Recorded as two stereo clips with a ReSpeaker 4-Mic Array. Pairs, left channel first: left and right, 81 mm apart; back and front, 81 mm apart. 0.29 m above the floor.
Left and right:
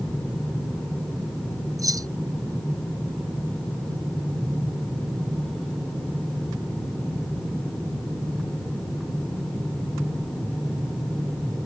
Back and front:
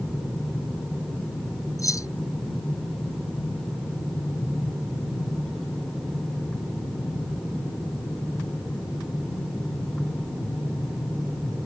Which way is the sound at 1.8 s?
135° right.